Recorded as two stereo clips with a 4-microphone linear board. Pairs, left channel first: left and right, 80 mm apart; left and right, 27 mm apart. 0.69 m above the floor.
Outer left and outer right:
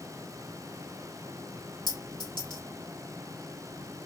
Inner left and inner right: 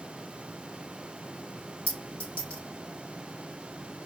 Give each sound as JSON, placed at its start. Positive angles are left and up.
{"t": 1.9, "sound": "a clink", "side_deg": 75, "distance_m": 1.9}